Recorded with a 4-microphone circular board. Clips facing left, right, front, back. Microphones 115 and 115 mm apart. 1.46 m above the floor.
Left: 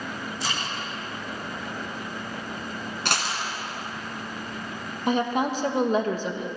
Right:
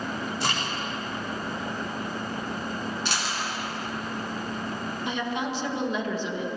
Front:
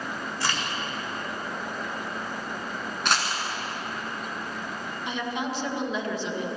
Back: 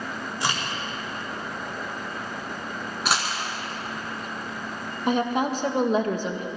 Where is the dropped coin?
95° left, 2.5 m.